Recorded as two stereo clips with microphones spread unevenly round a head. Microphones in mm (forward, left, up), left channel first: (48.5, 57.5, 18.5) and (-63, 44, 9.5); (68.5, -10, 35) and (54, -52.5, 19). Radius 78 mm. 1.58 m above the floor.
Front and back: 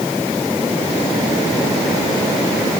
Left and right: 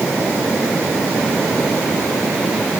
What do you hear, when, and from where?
Only background noise.